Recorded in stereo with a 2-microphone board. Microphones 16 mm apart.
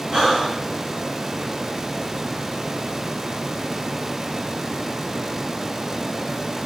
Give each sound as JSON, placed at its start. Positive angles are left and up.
{"t": 0.1, "sound": "breathing", "side_deg": -65, "distance_m": 5.0}